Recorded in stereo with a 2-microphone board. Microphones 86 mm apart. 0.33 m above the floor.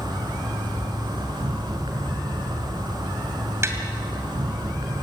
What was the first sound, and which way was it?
An insect, 75° right (ahead or behind).